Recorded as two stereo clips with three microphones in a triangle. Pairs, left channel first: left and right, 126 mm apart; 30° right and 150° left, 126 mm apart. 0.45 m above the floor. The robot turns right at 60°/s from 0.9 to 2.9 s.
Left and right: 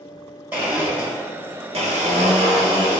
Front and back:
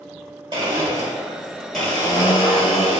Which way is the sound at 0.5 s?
165° right.